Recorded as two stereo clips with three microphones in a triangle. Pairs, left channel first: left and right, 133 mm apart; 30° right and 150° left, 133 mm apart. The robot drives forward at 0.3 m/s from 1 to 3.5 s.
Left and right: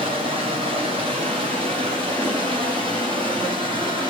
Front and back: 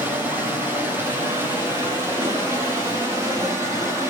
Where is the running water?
135° right, 7 m; by 4.1 s 140° right, 7.5 m.